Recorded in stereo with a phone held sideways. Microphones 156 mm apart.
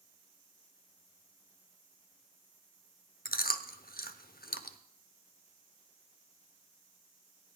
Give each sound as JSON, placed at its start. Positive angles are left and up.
{"t": 3.2, "sound": "chewing", "side_deg": 80, "distance_m": 0.8}